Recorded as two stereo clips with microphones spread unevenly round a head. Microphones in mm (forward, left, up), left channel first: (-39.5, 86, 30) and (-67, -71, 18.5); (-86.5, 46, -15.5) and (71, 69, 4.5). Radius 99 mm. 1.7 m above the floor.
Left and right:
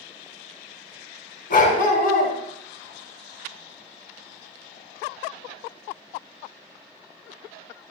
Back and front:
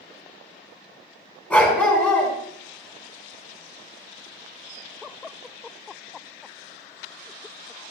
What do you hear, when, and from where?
1.5 s a dog barking: 105° left, 4 m